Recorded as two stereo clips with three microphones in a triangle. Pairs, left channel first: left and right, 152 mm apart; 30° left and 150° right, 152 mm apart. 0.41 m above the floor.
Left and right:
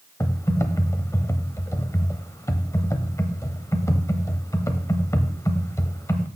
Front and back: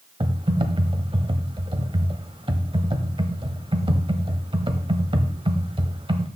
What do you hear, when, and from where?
0.2 s typing on a keyboard: 160° left, 1.0 m